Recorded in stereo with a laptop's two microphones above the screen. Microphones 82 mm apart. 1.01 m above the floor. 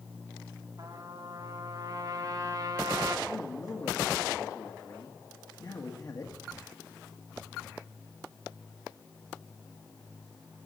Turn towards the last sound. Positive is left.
turn(degrees=50)  # may be behind; listen again after turning